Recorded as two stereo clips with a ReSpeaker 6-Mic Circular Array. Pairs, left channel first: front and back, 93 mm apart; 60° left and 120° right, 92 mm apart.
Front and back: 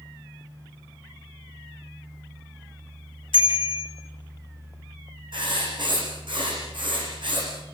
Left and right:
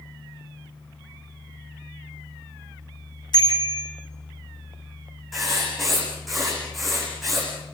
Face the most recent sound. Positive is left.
turn(degrees=150)